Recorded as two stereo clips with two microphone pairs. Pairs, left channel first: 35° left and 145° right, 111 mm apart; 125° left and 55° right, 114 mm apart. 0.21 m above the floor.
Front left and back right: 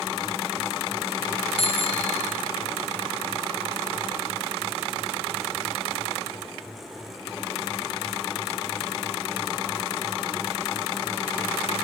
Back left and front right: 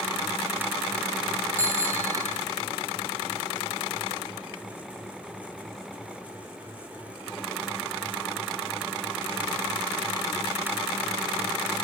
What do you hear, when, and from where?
1.6 s a bicycle bell: 15° left, 4.5 m